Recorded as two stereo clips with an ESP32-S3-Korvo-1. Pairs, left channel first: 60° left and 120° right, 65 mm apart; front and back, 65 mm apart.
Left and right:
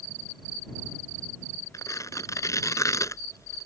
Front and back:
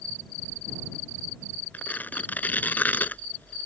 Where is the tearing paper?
55° left.